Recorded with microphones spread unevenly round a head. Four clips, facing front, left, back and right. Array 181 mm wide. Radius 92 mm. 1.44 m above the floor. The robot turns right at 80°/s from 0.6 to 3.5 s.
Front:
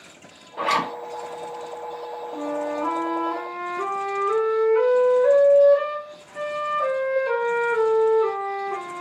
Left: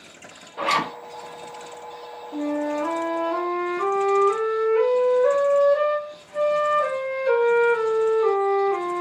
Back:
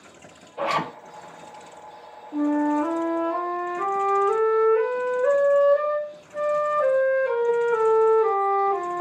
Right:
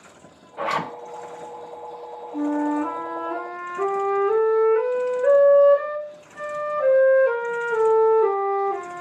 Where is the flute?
155° left, 1.3 m; by 9.0 s 110° right, 1.3 m.